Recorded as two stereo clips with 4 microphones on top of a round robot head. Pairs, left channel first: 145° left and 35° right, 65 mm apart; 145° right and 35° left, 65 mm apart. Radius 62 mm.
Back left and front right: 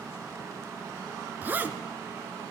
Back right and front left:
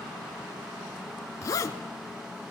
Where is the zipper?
100° right, 1.5 m.